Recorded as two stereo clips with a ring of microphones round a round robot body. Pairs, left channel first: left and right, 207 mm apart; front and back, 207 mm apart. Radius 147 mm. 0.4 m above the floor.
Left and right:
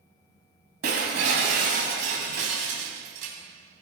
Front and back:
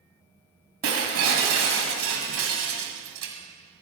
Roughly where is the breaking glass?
Behind right.